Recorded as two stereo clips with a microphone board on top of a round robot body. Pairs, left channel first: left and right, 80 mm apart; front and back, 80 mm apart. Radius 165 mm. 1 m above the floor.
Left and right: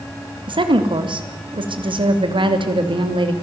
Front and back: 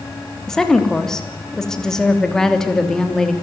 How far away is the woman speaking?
About 3 m.